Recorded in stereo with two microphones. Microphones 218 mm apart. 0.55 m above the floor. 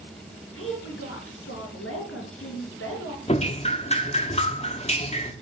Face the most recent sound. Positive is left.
turn(degrees=30)  # may be behind; listen again after turning